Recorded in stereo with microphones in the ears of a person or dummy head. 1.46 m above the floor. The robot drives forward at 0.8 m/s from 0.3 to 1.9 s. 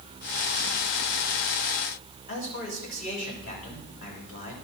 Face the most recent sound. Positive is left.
turn(degrees=40)  # may be behind; listen again after turning